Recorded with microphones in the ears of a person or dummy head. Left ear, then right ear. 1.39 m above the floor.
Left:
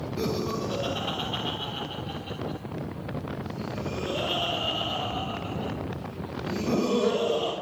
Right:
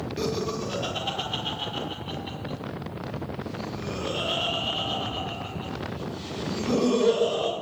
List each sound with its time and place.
0.2 s laughter: 15° right (ahead or behind), 3.5 m; by 7.5 s 10° right (ahead or behind), 7.5 m